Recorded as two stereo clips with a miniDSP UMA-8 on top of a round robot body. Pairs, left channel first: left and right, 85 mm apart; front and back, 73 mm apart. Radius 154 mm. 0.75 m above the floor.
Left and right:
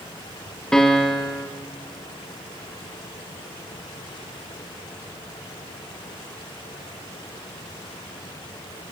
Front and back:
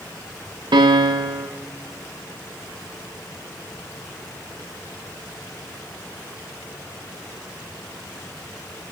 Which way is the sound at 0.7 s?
175° left.